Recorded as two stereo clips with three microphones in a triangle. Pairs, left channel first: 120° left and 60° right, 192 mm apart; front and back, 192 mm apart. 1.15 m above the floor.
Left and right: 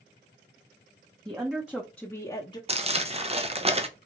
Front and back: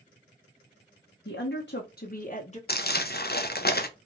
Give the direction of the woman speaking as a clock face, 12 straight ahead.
12 o'clock.